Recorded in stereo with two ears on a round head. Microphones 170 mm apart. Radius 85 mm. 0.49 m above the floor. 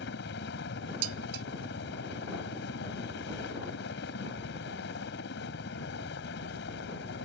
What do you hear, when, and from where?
0.0 s a helicopter: 60° left (ahead or behind)
1.0 s dishes clattering: 70° right (ahead or behind)